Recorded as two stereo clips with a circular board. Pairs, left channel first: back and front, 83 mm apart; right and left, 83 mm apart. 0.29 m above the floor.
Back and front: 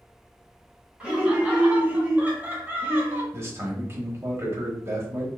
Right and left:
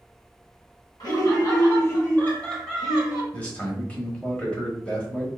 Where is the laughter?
75° right, 1.7 m; by 3.2 s 35° left, 1.1 m.